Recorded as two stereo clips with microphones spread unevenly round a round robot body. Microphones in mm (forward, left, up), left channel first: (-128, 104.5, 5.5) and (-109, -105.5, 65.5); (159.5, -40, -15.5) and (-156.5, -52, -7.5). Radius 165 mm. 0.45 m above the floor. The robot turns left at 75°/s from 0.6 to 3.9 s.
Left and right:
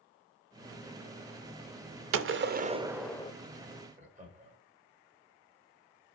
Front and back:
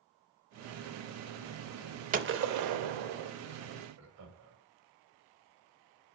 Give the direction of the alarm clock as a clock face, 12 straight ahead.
No alarm clock in this recording.